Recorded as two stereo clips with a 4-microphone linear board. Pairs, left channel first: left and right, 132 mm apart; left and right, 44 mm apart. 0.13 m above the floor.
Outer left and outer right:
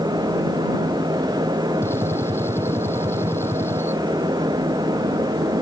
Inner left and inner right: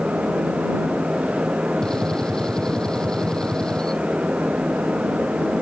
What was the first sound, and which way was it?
A gunshot, 15° left (ahead or behind).